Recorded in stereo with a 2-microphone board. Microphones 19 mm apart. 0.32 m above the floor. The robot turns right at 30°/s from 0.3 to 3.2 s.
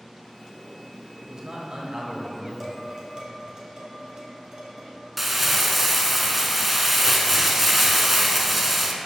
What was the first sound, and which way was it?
A man speaking, 125° right.